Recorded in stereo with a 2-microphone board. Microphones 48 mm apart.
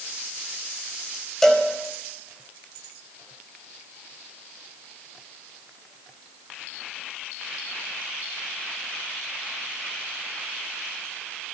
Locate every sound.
1.4 s a cowbell: 10° left (ahead or behind), 4.5 m